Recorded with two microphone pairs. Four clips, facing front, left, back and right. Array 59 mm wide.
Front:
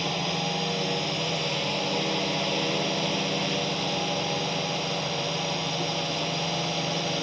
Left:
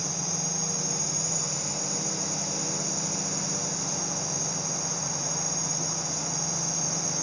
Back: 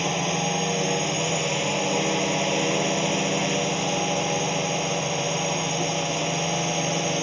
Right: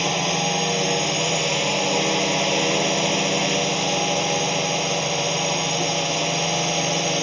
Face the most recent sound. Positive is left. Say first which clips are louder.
# right 13 dB, back 4 dB
turn(degrees=-110)